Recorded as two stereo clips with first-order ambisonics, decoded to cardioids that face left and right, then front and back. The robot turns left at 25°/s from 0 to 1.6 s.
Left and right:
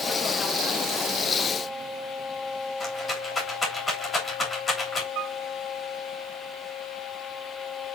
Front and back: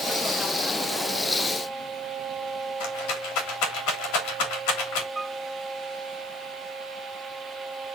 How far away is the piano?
About 0.6 m.